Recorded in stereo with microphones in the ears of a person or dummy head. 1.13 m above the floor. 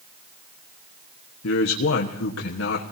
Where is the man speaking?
70° left (ahead or behind), 1.4 m.